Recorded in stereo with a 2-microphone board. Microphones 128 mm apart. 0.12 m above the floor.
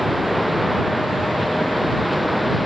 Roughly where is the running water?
Centre.